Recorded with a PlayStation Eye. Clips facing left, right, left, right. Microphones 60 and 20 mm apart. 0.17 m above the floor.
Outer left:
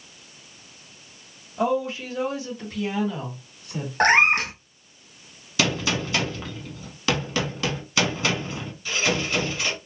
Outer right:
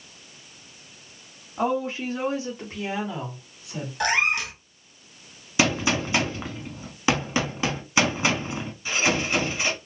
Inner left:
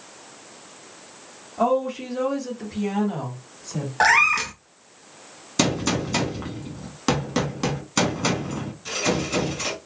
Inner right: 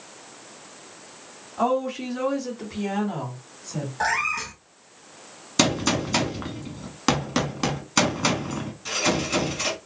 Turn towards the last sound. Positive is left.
turn(degrees=-20)  # may be behind; listen again after turning